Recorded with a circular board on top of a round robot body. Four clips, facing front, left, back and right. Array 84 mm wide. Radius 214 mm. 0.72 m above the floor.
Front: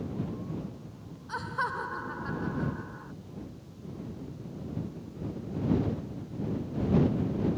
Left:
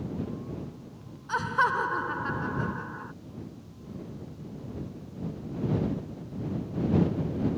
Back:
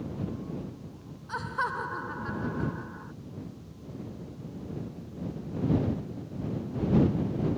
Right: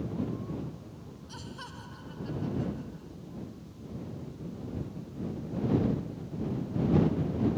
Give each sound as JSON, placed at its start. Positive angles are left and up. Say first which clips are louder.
{"t": 1.3, "sound": "laughter", "louder": "left 21 dB, back 1 dB", "azimuth_deg": 90}